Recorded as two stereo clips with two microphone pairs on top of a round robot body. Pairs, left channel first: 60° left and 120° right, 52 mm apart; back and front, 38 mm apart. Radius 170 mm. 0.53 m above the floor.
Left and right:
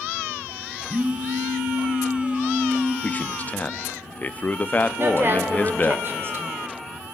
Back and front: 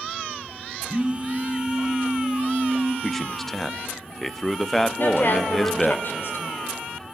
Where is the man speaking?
105° left, 0.9 m.